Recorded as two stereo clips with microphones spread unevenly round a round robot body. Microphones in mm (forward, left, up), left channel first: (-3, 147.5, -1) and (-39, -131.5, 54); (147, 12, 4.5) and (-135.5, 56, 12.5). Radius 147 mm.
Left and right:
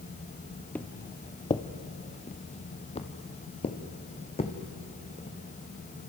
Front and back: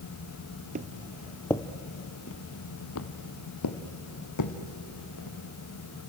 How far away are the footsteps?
About 0.8 m.